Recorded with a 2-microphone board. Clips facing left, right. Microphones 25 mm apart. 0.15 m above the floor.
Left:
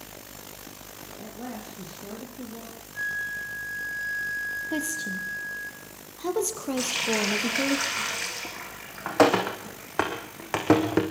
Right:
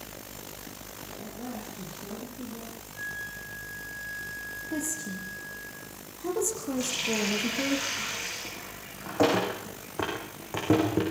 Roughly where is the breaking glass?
I don't hear breaking glass.